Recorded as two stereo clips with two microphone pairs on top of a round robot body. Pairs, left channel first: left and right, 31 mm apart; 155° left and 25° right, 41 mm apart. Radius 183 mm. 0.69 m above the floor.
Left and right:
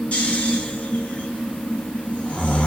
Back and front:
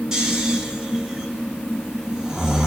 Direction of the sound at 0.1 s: 50° left.